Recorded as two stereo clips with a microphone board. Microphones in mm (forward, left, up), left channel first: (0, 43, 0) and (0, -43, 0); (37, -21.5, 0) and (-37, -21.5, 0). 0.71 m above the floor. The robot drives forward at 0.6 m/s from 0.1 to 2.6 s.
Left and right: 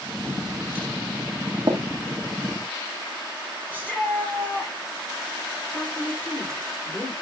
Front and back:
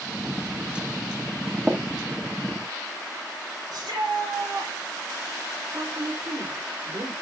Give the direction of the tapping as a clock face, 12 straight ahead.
4 o'clock.